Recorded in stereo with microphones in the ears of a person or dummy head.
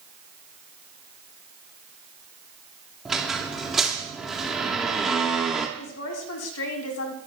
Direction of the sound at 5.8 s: 80° left.